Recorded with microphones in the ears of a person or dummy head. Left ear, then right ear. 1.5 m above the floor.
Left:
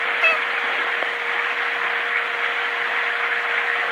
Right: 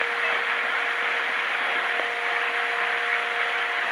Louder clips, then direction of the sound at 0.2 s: Left 6 dB; 55° left (ahead or behind).